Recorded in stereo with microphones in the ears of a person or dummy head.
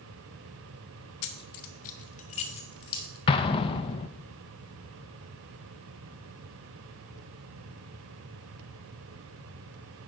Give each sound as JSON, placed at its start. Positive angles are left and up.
{"t": 1.2, "sound": "keys jangling", "side_deg": 60, "distance_m": 0.6}
{"t": 3.3, "sound": "an explosion", "side_deg": 30, "distance_m": 0.7}